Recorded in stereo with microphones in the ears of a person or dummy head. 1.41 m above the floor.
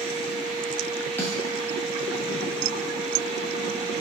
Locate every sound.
0.0 s a fan: 40° right (ahead or behind), 0.9 m
1.2 s a snare drum: 10° left (ahead or behind), 0.8 m